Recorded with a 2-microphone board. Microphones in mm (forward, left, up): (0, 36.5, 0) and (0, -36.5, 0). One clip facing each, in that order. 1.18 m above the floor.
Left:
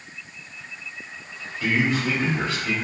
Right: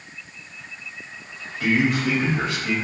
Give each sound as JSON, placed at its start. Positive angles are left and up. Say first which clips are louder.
{"t": 1.6, "sound": "a man speaking", "louder": "right 2 dB", "side_deg": -70, "distance_m": 1.3}